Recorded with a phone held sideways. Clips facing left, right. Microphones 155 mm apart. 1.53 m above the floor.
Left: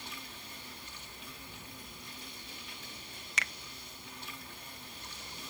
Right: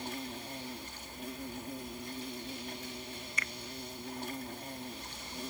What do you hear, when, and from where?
0.0 s an insect: 50° right (ahead or behind)
3.4 s a finger snap: 80° left